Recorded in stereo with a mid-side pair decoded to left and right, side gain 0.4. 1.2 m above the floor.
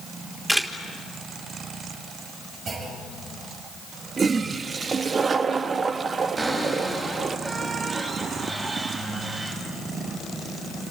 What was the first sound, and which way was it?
A camera shutter, 10° right.